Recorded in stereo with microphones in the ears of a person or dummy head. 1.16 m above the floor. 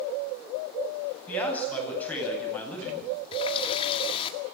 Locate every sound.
1.3 s a man speaking: 5° left (ahead or behind), 9.5 m
3.3 s a running tap: 25° left (ahead or behind), 1.9 m